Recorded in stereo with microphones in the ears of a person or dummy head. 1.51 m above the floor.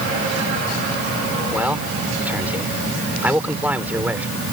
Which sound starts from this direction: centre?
A man speaking, at 1.5 s.